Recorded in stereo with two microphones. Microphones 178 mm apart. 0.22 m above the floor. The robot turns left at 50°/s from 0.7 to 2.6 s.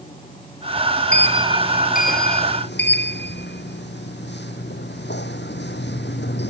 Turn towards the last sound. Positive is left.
turn(degrees=100)